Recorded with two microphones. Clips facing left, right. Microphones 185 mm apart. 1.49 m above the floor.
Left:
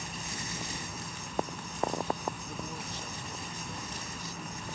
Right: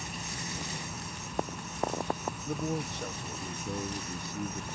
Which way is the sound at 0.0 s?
Centre (ahead or behind).